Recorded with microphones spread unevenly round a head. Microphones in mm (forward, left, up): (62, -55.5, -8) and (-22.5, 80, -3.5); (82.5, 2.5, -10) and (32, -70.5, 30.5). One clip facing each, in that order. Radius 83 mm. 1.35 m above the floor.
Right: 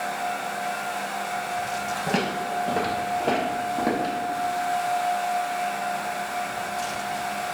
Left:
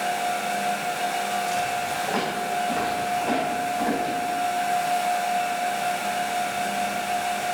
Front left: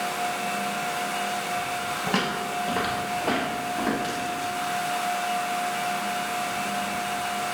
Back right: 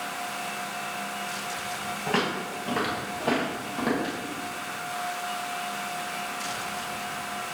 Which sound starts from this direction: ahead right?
Footsteps, at 2.1 s.